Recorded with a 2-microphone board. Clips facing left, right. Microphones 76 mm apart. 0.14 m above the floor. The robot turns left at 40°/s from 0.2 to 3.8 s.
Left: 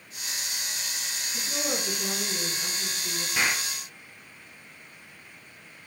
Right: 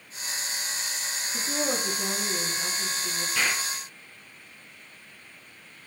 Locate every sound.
1.3 s a woman speaking: 90° right, 4.5 m; by 3.2 s 170° right, 4.5 m
3.4 s an explosion: 15° left (ahead or behind), 1.7 m; by 3.7 s 25° left (ahead or behind), 1.7 m